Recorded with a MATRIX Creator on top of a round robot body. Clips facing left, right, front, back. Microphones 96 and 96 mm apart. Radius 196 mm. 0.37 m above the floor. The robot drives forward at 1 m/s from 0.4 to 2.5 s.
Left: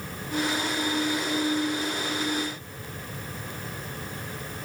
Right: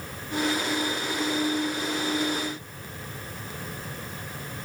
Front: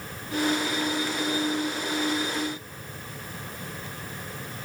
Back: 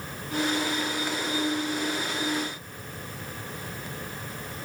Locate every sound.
Only background noise.